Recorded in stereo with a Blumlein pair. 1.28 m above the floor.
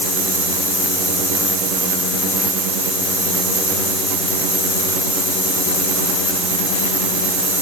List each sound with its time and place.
Only background noise.